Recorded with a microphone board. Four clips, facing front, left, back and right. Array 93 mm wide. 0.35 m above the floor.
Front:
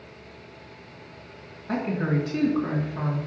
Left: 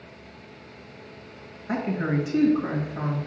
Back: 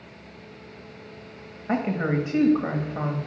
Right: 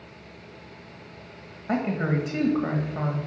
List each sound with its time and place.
1.7 s a woman speaking: 145° right, 1.4 m